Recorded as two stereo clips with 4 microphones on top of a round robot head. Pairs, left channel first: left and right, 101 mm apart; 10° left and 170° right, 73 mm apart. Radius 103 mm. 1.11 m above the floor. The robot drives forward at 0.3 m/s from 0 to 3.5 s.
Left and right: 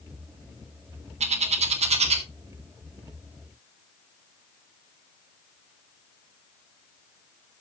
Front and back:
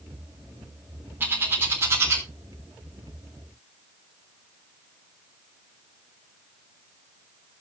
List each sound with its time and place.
1.2 s a bird: 105° right, 2.0 m; by 2.2 s 115° right, 2 m